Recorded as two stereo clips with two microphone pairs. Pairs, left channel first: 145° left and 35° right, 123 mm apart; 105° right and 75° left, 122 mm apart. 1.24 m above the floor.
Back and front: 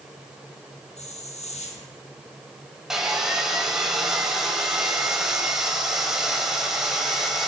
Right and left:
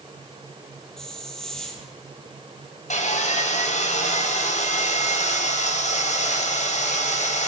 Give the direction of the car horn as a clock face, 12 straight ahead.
No car horn in this recording.